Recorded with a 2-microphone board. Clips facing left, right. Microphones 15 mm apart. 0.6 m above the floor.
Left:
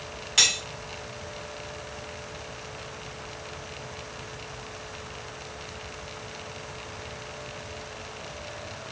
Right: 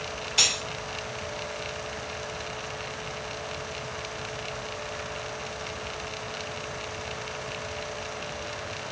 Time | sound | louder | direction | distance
0.4 | cutlery clinking | left 2 dB | 50° left (ahead or behind) | 1.4 m